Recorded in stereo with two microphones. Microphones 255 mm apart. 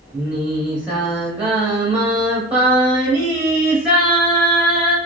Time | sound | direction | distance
0.1 | singing | 5° right (ahead or behind) | 1.1 m